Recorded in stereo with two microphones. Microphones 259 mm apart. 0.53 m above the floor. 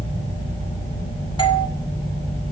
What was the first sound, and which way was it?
A doorbell, 20° left (ahead or behind).